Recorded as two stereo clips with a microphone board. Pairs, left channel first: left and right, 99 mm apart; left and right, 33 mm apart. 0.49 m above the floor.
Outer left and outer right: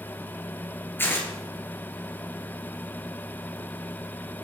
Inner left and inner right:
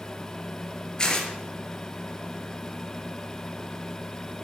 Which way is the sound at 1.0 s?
20° left (ahead or behind).